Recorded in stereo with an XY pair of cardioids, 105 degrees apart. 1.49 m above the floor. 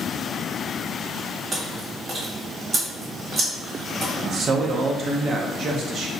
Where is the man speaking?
50° right, 0.8 m.